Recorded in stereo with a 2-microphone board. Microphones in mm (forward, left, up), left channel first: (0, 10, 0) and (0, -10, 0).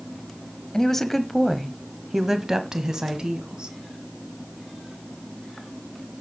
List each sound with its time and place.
0.7 s a woman speaking: 20° left (ahead or behind), 1.0 m; by 3.8 s 55° right (ahead or behind), 1.5 m